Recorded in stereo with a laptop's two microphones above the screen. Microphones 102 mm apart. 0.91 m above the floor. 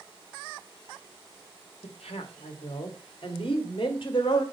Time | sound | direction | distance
1.8 | a woman speaking | 80° left | 1.2 m